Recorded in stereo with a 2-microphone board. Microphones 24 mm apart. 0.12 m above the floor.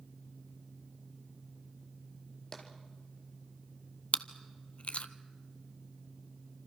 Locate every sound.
2.5 s tapping: 20° left (ahead or behind), 3 m
4.1 s chewing: 60° left (ahead or behind), 0.8 m